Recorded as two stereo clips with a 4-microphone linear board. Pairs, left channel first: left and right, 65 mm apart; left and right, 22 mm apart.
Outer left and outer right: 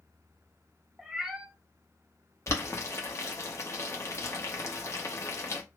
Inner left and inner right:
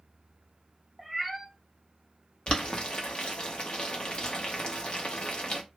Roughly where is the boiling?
Left.